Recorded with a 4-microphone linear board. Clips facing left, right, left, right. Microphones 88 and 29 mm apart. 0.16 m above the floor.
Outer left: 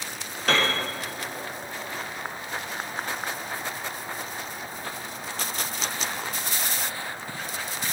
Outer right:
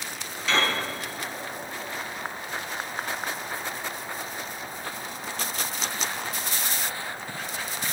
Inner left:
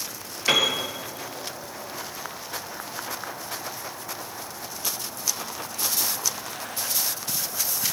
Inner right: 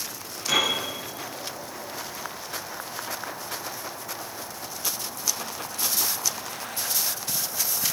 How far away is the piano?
About 4 m.